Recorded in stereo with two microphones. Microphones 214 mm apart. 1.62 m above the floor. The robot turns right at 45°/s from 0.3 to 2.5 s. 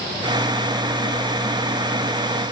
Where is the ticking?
No ticking in this recording.